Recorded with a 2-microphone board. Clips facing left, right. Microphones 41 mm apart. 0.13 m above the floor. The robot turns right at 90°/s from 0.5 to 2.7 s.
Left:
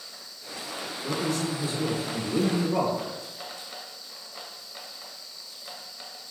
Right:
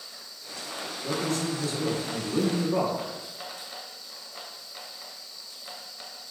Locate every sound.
1.0 s a man speaking: 10° left (ahead or behind), 1.0 m; by 3.0 s centre (ahead or behind), 1.0 m